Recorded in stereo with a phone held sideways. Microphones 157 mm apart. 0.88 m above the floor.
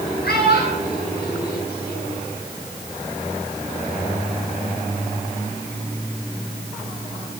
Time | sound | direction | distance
0.2 | a child speaking | 85° left | 10 m